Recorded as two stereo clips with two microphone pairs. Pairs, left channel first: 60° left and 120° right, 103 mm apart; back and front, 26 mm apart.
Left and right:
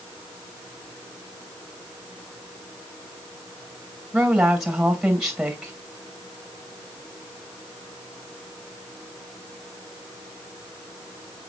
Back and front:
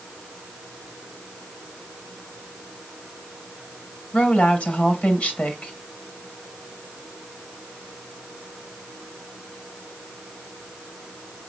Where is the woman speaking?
155° left, 2.5 m.